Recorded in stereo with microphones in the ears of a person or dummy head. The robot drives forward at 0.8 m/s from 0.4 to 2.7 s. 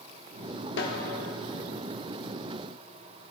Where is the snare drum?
60° left (ahead or behind), 1.3 m; by 1.0 s 55° left (ahead or behind), 1.3 m.